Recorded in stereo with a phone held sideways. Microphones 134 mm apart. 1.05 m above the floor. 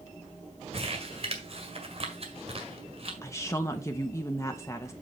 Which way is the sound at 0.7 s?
45° right (ahead or behind).